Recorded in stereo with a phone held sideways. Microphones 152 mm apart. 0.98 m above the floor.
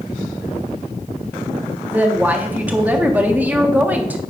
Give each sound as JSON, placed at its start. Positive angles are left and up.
{"t": 1.9, "sound": "a woman speaking", "side_deg": -10, "distance_m": 1.4}